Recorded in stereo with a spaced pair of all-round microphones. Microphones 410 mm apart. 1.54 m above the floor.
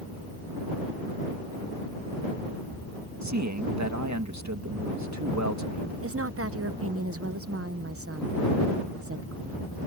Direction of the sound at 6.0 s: 35° right (ahead or behind).